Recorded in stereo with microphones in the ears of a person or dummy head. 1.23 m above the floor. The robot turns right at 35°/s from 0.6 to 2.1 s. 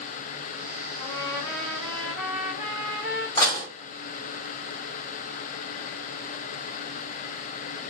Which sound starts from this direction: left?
Dishes clattering, at 3.4 s.